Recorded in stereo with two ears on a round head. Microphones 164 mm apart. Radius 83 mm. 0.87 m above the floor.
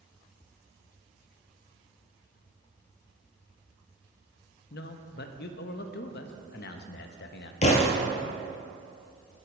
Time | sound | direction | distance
4.7 | a man speaking | 60° left (ahead or behind) | 0.6 m
7.6 | a thud | 40° left (ahead or behind) | 1.2 m